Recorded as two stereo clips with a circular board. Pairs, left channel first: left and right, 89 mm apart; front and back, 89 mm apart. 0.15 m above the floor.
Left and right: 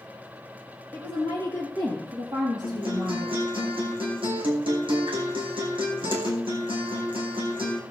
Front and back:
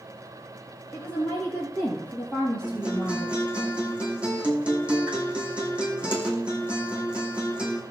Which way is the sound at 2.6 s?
105° right.